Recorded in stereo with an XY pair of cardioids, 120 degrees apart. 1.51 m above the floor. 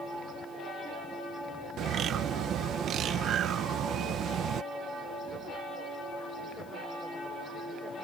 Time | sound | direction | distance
1.8 | a bird | 60° right | ?